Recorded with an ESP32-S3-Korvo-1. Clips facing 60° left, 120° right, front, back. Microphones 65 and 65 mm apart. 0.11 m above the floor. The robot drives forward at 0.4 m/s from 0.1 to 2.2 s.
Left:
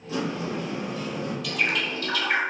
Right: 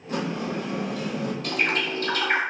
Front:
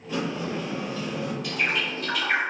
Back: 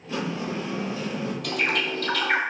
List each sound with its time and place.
0.1 s a sliding door: 95° right, 0.9 m; by 1.3 s 125° right, 1.1 m
1.4 s a bird: 165° right, 0.6 m; by 2.4 s 170° right, 0.9 m